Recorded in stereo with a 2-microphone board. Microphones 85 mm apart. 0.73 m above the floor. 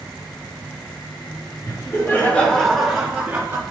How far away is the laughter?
About 1.6 m.